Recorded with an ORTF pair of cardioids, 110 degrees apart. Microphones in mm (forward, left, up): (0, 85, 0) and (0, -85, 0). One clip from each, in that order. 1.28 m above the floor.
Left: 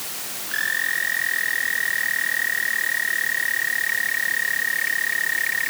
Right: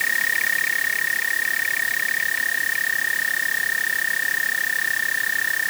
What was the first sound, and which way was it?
Only background noise.